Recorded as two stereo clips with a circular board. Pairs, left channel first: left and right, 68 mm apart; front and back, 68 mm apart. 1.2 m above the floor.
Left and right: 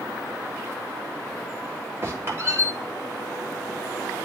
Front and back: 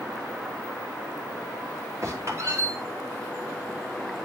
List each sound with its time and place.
2.0 s a squeak: 140° right, 2.5 m